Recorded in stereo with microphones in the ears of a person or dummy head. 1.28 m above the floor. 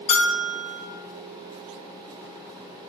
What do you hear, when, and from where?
0.1 s a bell: 40° left (ahead or behind), 0.5 m